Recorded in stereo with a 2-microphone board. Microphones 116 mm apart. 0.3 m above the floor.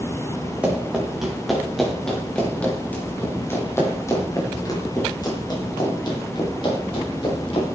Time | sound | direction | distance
0.6 | running footsteps | 10° right (ahead or behind) | 6.5 m